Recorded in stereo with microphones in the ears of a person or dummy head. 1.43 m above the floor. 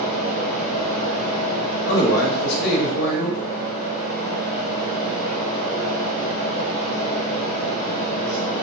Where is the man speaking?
65° left (ahead or behind), 0.8 m.